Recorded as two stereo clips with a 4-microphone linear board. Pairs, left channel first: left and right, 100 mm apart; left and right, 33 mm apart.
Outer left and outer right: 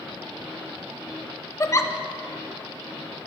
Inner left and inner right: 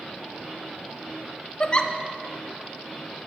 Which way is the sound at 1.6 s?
30° left (ahead or behind).